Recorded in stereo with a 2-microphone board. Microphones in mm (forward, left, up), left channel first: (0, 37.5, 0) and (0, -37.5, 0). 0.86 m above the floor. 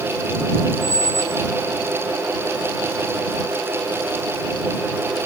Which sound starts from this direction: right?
A squeak, at 0.8 s.